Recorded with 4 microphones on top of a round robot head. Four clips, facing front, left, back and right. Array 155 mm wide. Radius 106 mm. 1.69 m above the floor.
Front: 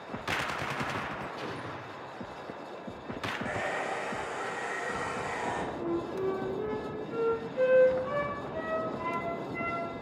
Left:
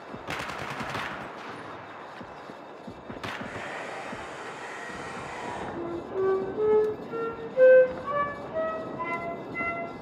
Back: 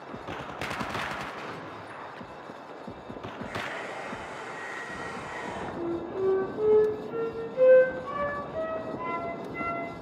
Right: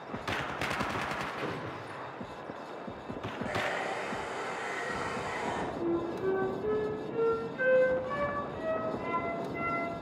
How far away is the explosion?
About 3.5 m.